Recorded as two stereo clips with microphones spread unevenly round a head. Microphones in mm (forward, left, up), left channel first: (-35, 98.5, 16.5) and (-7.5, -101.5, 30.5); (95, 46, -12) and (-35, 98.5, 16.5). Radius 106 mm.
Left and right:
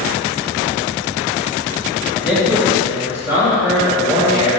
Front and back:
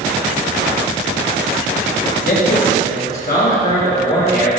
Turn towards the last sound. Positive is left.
turn(degrees=-5)